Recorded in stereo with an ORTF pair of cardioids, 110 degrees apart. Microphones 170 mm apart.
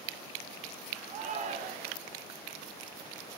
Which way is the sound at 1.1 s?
55° right.